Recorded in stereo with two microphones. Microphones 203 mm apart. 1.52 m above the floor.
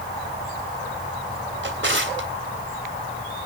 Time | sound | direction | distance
1.6 | a drawer | 70° right (ahead or behind) | 3 m